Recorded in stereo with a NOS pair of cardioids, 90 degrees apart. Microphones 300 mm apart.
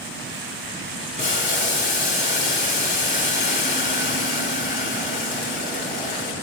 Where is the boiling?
35° left, 4 m.